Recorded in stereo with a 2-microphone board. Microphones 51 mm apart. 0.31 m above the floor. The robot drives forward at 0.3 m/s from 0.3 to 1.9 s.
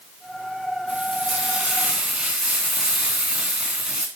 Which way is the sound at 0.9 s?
20° right (ahead or behind).